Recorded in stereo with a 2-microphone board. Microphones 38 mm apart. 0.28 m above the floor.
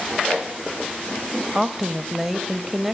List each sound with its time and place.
1.6 s a woman speaking: 10° right (ahead or behind), 1.4 m